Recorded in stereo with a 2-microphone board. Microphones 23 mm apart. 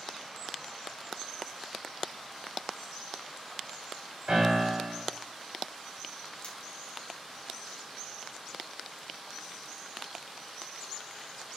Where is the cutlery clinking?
70° left (ahead or behind), 1.1 m.